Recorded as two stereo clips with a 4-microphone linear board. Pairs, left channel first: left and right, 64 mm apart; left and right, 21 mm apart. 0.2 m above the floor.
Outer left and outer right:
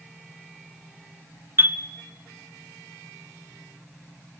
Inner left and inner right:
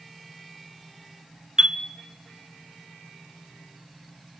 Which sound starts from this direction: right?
A chime, at 1.6 s.